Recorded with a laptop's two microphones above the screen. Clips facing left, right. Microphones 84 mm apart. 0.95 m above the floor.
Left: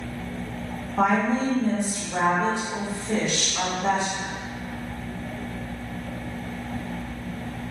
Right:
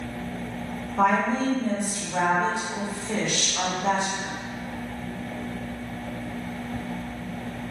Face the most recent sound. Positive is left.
turn(degrees=30)  # may be behind; listen again after turning